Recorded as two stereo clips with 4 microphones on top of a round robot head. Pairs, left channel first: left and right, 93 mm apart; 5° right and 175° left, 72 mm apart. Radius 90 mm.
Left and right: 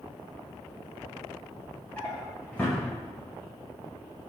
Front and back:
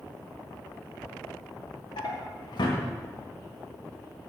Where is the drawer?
15° left, 1.6 m.